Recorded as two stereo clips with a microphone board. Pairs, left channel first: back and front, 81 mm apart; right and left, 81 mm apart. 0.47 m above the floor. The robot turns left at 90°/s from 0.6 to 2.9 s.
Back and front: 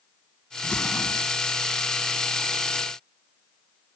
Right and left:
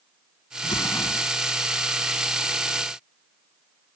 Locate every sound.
0.6 s an explosion: 105° right; by 1.3 s 165° right